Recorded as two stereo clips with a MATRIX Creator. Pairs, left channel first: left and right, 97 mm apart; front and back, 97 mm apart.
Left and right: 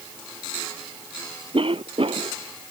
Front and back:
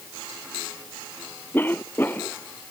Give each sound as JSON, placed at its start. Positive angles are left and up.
{"t": 1.5, "sound": "a cough", "azimuth_deg": -70}